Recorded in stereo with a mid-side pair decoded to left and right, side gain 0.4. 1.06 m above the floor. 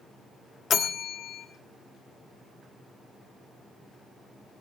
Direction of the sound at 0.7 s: 60° left.